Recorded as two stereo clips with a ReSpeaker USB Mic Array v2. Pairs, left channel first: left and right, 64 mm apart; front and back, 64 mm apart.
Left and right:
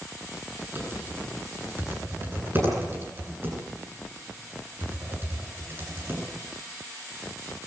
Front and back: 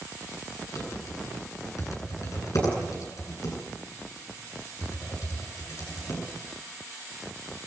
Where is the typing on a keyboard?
35° right, 9 m.